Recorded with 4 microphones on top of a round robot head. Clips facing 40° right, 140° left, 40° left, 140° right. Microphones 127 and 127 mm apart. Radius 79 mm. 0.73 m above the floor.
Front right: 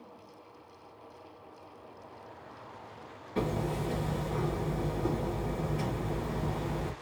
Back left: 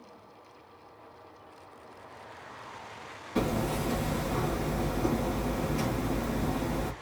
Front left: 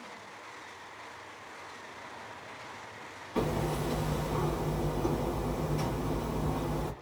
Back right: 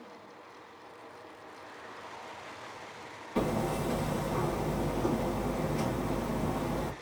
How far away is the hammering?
About 2 m.